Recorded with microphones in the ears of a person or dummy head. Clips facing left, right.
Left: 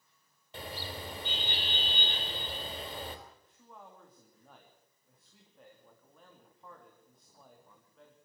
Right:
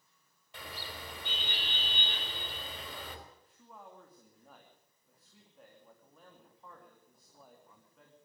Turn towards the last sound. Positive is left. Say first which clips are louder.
# even
turn(degrees=0)  # may be behind; listen again after turning